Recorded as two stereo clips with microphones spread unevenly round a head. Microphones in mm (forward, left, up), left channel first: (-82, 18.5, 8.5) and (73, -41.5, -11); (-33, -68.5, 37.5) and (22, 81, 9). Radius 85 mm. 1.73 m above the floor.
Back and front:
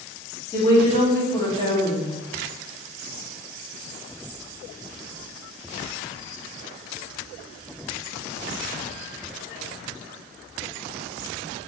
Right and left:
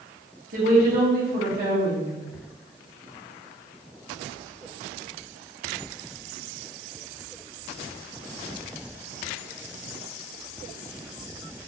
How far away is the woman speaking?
About 1.9 m.